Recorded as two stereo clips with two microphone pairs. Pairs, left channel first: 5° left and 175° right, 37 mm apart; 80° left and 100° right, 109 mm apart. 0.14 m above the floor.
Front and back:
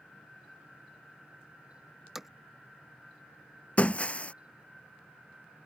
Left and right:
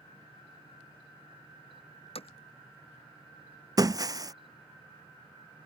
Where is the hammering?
105° left.